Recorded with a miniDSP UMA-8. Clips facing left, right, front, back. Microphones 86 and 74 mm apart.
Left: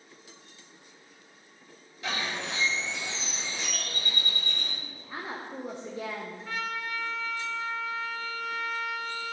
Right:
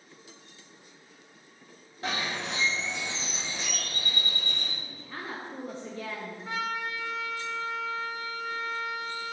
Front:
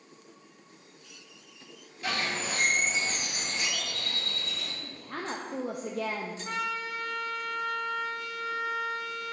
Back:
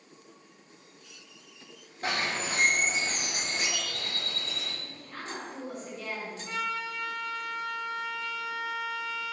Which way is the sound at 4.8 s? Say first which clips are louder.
Left 1 dB, front 4 dB; 15° left.